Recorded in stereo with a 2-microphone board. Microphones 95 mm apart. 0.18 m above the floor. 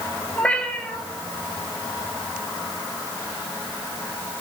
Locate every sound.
0.4 s a cat meowing: 15° left (ahead or behind), 1.3 m